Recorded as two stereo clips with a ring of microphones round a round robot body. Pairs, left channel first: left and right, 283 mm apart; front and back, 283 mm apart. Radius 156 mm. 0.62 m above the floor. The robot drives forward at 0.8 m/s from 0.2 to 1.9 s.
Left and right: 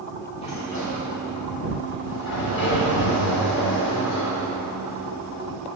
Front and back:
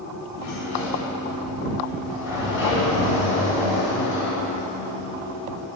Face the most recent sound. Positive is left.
turn(degrees=105)